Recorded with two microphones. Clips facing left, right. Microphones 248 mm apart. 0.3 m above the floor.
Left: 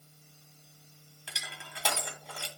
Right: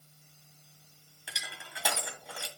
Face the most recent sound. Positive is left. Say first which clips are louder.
# even
turn(degrees=-5)  # may be behind; listen again after turning